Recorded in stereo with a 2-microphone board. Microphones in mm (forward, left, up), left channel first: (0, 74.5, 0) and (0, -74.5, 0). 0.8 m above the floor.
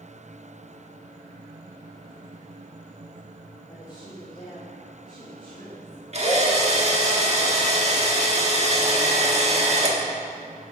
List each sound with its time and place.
3.7 s a woman speaking: 25° left (ahead or behind), 2 m
6.1 s a drill: 45° right (ahead or behind), 1.4 m